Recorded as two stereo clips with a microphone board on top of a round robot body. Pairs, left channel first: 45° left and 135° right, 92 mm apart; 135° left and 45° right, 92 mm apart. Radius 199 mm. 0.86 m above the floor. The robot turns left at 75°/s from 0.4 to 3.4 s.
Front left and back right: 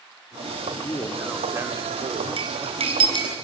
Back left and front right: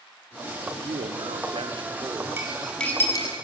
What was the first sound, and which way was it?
A man speaking, 5° left.